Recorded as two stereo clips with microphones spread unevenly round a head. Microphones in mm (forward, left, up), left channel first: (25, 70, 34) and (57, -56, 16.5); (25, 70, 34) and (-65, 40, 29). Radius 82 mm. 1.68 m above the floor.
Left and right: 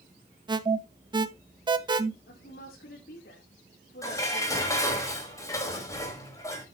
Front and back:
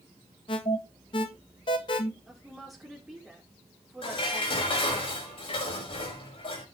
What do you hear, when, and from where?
0.5 s an alarm: 25° right, 1.4 m
2.3 s a woman speaking: 110° left, 4 m
4.0 s dishes clattering: 40° left, 5.5 m